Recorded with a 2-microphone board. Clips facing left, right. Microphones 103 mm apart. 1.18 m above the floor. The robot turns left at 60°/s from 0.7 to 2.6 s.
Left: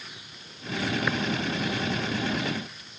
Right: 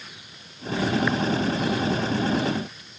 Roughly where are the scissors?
No scissors in this recording.